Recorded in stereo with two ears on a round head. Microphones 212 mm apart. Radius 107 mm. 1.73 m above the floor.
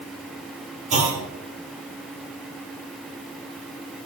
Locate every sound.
0.9 s a clunk: 30° right (ahead or behind), 5 m